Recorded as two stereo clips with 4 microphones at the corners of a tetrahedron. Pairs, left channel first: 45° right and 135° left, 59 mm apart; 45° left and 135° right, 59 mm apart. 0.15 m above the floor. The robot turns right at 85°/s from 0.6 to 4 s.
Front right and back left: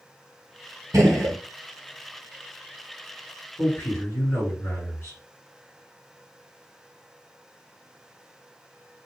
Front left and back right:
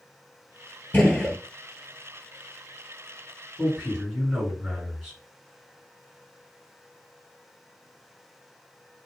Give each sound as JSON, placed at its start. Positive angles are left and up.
{"t": 0.9, "sound": "a gunshot", "azimuth_deg": 105, "distance_m": 1.0}
{"t": 3.6, "sound": "a man speaking", "azimuth_deg": -80, "distance_m": 2.0}